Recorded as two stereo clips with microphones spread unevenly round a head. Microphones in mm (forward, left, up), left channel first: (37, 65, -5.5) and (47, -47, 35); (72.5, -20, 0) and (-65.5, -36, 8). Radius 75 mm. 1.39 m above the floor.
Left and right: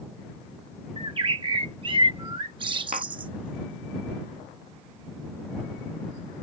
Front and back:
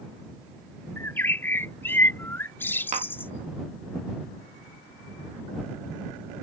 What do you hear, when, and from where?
1.0 s a bird: 70° right
2.9 s tapping: 135° right